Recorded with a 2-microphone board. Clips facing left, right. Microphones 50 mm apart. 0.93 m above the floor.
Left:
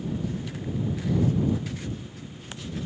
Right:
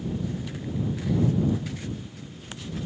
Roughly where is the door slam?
No door slam in this recording.